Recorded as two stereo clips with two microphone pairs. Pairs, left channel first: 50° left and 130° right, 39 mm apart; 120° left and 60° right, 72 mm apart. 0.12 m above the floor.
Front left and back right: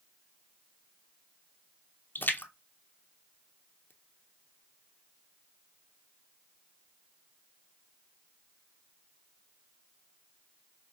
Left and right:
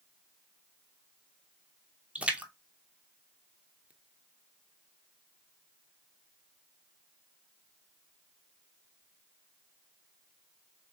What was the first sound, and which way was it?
A splash, 15° left.